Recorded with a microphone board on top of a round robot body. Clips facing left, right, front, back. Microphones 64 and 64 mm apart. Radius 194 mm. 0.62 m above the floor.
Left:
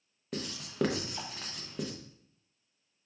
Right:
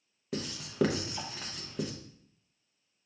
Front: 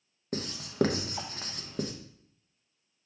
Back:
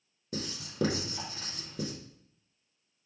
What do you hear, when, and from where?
0.3 s writing: straight ahead, 0.9 m